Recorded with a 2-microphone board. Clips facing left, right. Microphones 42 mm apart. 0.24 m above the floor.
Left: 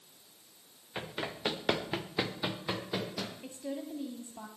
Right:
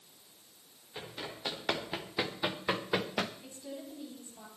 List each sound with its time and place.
0.9 s running footsteps: 35° left (ahead or behind), 2 m; by 3.3 s 50° right (ahead or behind), 1.5 m
3.4 s a woman speaking: 30° left (ahead or behind), 1.4 m